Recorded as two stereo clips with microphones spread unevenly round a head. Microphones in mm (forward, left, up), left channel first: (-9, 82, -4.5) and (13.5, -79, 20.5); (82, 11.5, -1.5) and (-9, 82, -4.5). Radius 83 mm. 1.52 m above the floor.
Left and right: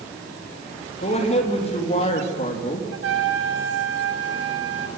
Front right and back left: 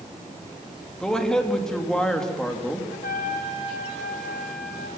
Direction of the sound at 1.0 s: 45° left.